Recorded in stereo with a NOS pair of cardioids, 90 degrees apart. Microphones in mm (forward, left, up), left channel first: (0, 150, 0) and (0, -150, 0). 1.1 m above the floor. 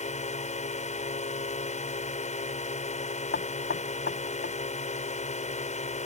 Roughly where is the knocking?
Ahead left.